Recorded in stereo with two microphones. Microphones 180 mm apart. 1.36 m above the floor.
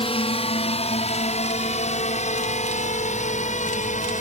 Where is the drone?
30° left (ahead or behind); by 4.2 s 40° left (ahead or behind).